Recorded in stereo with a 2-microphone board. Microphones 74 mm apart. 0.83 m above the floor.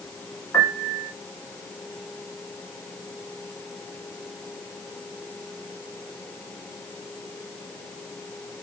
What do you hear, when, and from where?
0.5 s a piano: 40° left (ahead or behind), 1.0 m